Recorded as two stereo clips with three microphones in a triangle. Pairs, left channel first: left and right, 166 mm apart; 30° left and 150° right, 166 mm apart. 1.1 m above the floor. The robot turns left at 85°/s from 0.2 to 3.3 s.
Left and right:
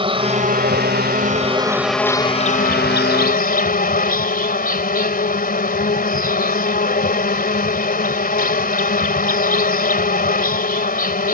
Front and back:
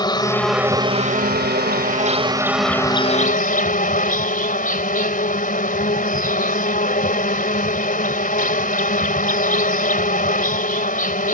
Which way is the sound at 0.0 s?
35° right.